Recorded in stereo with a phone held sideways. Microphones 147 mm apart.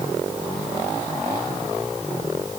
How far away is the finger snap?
I don't hear a finger snap.